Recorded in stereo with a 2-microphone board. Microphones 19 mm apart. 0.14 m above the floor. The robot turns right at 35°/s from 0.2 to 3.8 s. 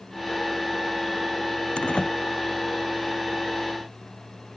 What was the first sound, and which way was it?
A door slam, 80° left.